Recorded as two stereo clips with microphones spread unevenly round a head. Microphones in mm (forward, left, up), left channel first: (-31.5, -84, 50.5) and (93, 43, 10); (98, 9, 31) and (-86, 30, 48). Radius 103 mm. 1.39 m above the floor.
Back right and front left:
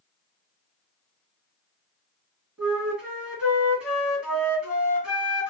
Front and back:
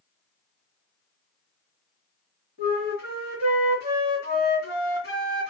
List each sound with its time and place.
2.6 s a flute: 45° right, 2 m